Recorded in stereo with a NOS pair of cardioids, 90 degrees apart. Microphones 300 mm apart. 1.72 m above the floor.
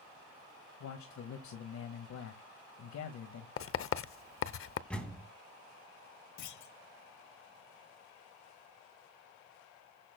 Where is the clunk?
70° left, 1.0 m.